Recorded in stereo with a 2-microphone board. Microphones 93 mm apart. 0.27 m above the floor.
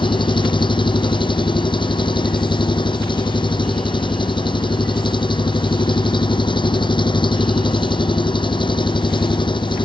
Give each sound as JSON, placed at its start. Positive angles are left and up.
{"t": 0.0, "sound": "an engine running", "side_deg": 60}